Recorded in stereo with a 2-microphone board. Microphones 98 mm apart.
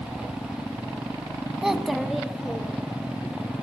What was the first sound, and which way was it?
A child speaking, 5° right (ahead or behind).